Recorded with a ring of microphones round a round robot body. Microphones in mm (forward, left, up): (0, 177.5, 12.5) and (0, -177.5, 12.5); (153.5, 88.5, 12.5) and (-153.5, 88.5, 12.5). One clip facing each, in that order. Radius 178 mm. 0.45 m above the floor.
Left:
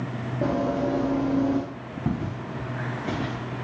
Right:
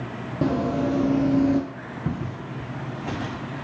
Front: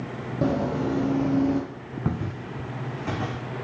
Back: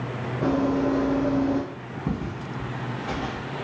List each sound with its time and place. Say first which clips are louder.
0.4 s running footsteps: right 2 dB, back 3 dB; 40° right, 1.1 m; by 1.6 s 50° right, 0.5 m
2.0 s footsteps: left 2 dB, back 1 dB; straight ahead, 1.7 m; by 3.4 s 25° right, 1.3 m